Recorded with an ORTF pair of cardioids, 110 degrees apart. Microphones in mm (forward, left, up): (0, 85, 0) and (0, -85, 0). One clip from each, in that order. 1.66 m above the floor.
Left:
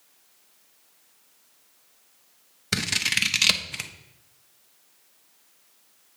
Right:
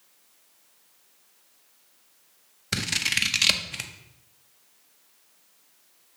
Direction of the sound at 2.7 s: 10° left.